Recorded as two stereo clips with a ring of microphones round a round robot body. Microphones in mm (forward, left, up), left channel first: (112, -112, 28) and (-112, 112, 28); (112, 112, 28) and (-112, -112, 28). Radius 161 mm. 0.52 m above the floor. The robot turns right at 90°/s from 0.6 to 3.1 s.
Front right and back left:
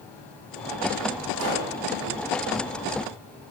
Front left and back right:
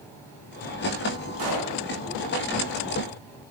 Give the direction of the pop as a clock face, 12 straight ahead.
6 o'clock.